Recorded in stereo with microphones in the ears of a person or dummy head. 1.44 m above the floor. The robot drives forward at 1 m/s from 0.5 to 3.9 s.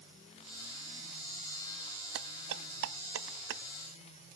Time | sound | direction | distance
2.1 | dishes clattering | 85° right | ?